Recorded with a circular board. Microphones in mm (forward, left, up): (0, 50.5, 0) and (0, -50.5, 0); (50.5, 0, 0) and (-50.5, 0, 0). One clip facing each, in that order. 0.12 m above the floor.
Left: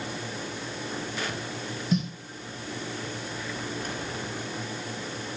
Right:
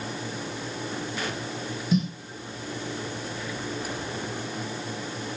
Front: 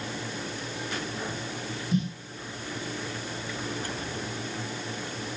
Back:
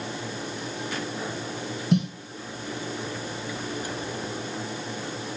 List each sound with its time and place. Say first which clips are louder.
1.9 s a snare drum: right 3 dB, back 5 dB; straight behind, 3 m